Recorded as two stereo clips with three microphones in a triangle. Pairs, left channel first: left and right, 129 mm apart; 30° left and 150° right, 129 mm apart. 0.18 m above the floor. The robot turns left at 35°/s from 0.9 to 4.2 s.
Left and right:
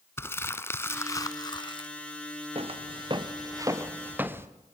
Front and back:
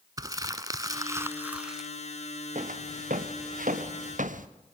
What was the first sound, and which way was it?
Crumpling, 155° left.